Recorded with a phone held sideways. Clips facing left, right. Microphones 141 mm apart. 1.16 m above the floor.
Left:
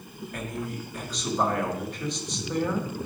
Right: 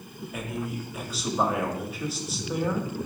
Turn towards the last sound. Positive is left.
turn(degrees=-5)  # may be behind; listen again after turning